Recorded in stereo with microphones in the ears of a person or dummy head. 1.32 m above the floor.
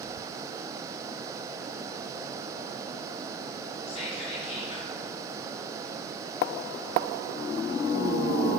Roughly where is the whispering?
Left.